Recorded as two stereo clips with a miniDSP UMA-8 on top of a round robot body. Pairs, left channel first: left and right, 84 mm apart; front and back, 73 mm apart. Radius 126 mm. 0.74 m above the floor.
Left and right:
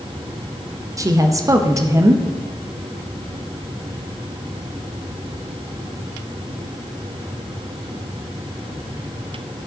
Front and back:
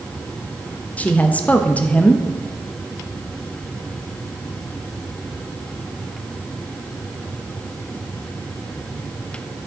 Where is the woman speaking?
65° right, 0.9 m.